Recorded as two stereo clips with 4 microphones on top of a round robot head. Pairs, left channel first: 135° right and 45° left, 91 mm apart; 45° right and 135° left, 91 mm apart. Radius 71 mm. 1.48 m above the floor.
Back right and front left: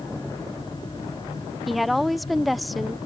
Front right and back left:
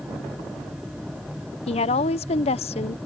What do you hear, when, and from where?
1.7 s a woman speaking: 45° right